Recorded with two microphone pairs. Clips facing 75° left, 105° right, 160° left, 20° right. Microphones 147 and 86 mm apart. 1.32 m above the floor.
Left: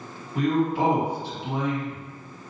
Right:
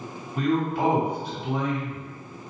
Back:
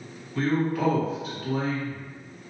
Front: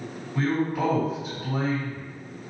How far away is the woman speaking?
About 1.7 m.